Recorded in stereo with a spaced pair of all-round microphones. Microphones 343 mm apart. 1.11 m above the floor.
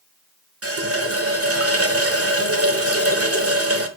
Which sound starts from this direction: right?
A running tap, at 0.6 s.